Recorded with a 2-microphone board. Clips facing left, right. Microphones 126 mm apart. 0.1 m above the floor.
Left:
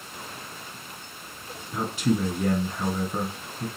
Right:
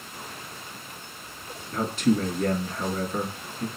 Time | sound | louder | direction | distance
1.7 | a man speaking | right 2 dB | 10° left (ahead or behind) | 1.2 m